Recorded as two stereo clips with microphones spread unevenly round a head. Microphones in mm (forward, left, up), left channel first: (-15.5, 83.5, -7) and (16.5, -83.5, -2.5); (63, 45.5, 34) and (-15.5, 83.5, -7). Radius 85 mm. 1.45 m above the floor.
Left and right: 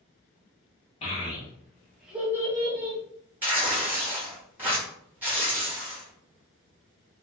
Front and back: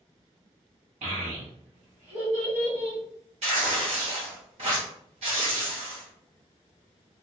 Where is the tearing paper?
160° right, 1.2 m.